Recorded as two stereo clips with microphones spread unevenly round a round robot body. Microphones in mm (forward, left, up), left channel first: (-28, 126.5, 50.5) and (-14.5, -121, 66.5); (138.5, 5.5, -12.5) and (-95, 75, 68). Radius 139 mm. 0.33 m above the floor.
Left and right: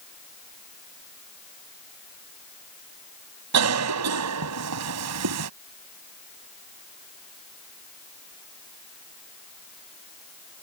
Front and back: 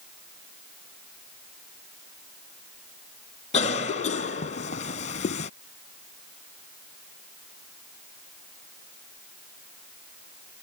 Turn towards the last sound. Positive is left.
turn(degrees=-70)